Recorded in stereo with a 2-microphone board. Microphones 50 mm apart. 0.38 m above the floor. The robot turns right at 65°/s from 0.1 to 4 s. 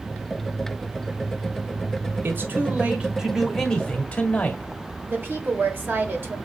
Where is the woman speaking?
45° right (ahead or behind), 1.3 m.